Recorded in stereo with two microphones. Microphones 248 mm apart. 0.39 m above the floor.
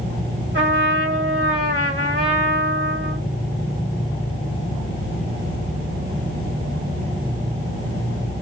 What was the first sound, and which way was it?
A trumpet, 50° right (ahead or behind).